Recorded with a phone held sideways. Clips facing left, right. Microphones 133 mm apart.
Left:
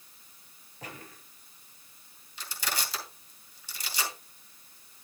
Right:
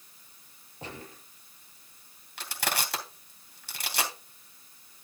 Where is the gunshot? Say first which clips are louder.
Right 3 dB; 30° right (ahead or behind), 3.5 m.